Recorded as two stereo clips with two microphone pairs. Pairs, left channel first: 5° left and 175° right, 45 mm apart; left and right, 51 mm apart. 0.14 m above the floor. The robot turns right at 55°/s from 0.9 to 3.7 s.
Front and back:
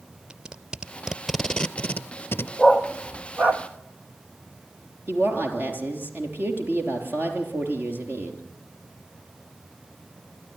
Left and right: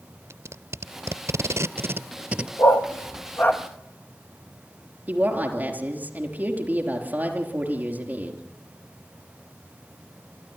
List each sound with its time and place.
0.3 s tape being pulled: 105° right, 0.6 m; by 2.5 s 15° right, 0.6 m
2.6 s a dog barking: 85° left, 1.4 m; by 3.6 s 145° left, 1.4 m
5.1 s a woman speaking: 140° right, 3.5 m